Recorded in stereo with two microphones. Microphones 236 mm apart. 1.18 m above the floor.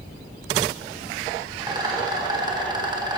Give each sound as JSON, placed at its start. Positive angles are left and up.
{"t": 1.6, "sound": "a rattle", "side_deg": -15, "distance_m": 1.3}